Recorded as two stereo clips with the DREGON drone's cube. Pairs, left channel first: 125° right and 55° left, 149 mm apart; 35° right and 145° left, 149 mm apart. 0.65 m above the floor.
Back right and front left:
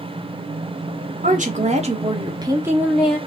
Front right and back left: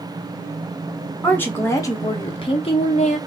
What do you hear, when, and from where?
1.2 s a woman speaking: 45° left, 1.0 m; by 3.2 s 40° right, 0.8 m